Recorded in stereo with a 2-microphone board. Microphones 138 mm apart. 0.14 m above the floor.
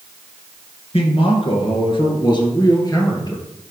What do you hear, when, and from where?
0.9 s a man speaking: 45° left (ahead or behind), 1.6 m; by 3.4 s 30° left (ahead or behind), 2.5 m